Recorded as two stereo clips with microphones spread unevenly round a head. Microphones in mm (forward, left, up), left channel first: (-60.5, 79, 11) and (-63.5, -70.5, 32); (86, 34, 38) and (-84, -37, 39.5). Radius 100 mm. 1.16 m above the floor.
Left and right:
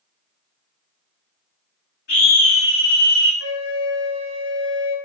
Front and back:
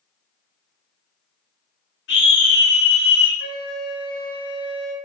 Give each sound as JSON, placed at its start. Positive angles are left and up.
{"t": 2.1, "sound": "a scream", "azimuth_deg": 50, "distance_m": 1.5}
{"t": 3.4, "sound": "a flute", "azimuth_deg": 65, "distance_m": 0.9}